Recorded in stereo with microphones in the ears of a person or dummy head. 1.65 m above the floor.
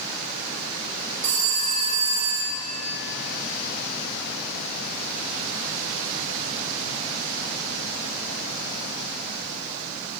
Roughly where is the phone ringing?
Right.